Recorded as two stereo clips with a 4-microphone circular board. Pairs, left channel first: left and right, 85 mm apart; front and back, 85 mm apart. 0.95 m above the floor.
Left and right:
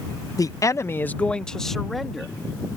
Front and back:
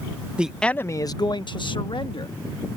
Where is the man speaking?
110° left; by 2.4 s straight ahead.